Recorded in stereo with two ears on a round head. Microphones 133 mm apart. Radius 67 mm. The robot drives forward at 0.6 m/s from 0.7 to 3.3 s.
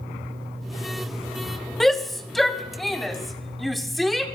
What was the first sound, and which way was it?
A shout, centre (ahead or behind).